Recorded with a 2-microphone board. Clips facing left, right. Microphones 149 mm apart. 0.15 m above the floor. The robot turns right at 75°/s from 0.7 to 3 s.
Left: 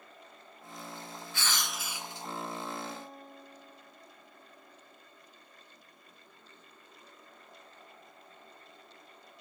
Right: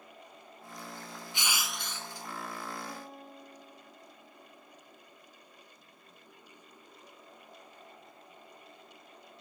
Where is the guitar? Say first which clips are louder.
Even; 10° right (ahead or behind); by 5.0 s centre (ahead or behind).